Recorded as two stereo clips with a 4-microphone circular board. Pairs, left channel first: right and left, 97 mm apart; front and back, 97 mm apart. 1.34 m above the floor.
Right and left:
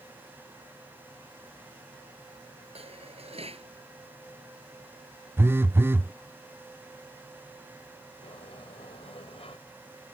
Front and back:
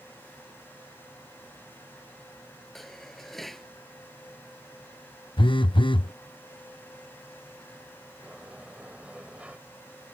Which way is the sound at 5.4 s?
25° left.